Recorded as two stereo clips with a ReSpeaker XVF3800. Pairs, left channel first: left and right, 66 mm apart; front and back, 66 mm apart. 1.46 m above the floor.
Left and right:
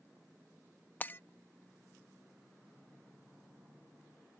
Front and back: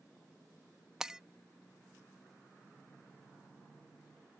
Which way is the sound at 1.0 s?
110° left.